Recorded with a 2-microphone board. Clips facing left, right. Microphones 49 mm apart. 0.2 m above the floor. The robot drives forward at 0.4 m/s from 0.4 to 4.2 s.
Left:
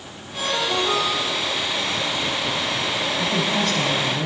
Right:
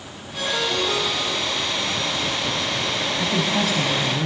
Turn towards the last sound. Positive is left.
turn(degrees=-10)  # may be behind; listen again after turning